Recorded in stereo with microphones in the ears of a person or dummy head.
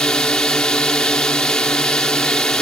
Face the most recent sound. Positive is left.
turn(degrees=0)  # may be behind; listen again after turning